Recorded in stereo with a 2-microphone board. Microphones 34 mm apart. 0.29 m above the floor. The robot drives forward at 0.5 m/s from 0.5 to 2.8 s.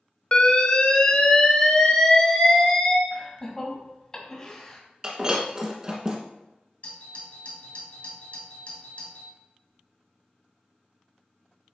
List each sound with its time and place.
0.3 s an alarm: 35° left (ahead or behind), 0.9 m; by 3.0 s 20° left (ahead or behind), 1.6 m
3.1 s laughter: 20° left (ahead or behind), 2 m
5.0 s breaking glass: 25° right (ahead or behind), 1.4 m
6.8 s a doorbell: 45° left (ahead or behind), 2.5 m